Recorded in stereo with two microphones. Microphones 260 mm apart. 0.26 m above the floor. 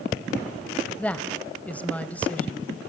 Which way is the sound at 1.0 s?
5° left (ahead or behind).